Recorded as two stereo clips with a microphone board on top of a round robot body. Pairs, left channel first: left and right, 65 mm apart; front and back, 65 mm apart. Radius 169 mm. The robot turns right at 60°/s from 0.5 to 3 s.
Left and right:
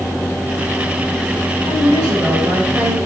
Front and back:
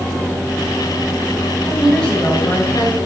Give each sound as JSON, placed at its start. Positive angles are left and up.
{"t": 1.6, "sound": "a woman speaking", "azimuth_deg": -105, "distance_m": 5.5}